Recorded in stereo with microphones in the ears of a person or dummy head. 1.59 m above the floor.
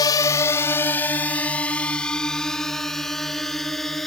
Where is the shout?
I don't hear a shout.